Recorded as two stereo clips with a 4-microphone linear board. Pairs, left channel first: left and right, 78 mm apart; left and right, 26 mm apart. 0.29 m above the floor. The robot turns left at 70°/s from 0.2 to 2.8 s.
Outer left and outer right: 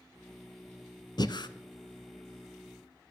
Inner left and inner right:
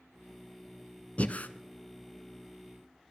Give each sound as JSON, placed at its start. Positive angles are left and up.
{"t": 1.2, "sound": "breathing", "side_deg": 65, "distance_m": 0.8}